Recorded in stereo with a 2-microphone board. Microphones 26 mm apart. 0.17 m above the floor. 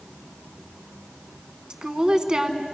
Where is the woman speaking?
30° right (ahead or behind), 1.3 m.